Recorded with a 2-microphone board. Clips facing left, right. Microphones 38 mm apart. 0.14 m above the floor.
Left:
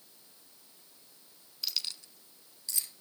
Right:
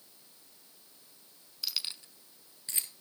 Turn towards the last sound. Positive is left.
turn(degrees=-35)  # may be behind; listen again after turning